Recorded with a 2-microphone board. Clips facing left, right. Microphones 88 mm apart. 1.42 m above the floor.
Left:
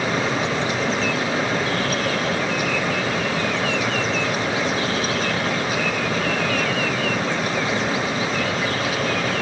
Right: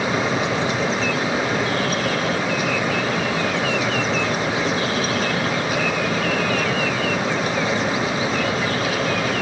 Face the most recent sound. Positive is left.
No sound to turn to.